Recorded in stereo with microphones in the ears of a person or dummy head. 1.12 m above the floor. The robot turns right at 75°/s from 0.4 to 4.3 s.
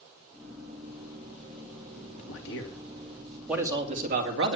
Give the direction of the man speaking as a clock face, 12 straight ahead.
9 o'clock.